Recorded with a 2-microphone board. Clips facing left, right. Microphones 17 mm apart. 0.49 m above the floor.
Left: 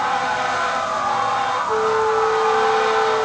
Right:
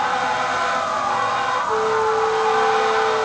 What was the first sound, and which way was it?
A flute, 15° left (ahead or behind).